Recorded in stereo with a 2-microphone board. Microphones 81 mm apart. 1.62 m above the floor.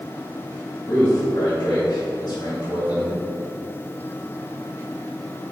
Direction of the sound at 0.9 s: 55° left (ahead or behind).